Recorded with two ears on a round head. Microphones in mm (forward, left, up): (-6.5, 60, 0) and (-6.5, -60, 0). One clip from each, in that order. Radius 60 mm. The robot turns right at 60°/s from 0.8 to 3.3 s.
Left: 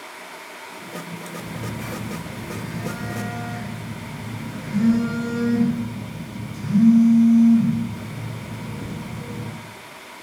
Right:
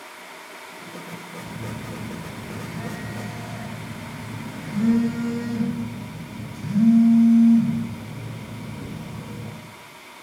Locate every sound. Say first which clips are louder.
1.4 s a phone buzzing: left 3 dB; 65° right, 1.3 m; by 9.5 s 50° left, 1.3 m